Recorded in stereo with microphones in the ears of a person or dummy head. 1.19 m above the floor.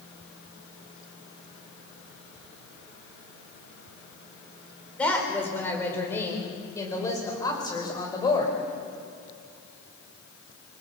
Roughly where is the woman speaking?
Centre.